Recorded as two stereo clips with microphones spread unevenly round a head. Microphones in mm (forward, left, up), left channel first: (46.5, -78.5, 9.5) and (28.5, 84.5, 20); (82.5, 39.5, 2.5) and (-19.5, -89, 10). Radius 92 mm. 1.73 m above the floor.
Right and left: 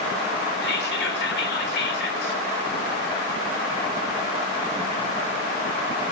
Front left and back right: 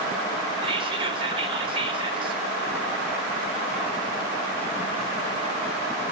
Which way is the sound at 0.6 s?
70° right.